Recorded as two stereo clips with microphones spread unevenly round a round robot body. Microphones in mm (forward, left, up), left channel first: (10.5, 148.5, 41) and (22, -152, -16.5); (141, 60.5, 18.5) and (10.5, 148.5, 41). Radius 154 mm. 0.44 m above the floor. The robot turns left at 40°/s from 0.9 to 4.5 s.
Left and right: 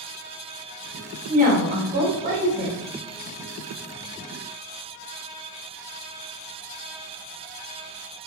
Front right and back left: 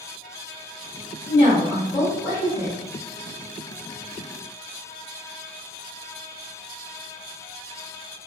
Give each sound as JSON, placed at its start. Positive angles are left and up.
{"t": 1.3, "sound": "a woman speaking", "azimuth_deg": -60, "distance_m": 0.9}